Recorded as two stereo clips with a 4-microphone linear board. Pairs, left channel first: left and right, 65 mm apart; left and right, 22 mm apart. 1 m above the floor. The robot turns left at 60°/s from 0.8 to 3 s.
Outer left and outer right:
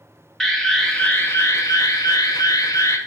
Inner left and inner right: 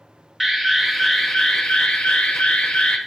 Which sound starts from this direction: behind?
An alarm, at 0.4 s.